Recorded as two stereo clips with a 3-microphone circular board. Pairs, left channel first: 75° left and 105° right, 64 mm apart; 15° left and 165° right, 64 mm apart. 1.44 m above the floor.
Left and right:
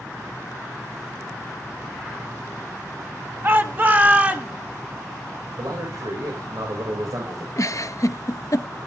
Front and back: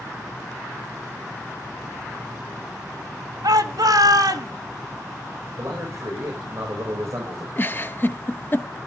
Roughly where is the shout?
Behind.